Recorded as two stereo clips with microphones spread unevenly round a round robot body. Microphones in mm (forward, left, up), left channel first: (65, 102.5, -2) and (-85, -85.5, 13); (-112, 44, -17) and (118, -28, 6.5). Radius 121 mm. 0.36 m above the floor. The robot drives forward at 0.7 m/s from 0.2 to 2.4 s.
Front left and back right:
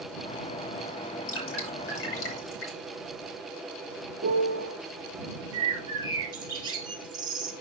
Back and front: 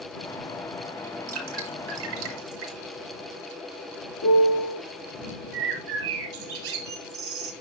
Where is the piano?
175° right, 1.5 m.